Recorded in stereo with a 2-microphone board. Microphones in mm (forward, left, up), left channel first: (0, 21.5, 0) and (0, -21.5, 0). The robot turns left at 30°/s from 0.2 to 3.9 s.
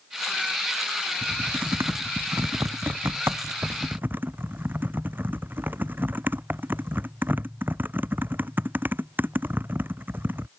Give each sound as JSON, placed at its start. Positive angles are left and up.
{"t": 1.2, "sound": "typing on a keyboard", "side_deg": -50}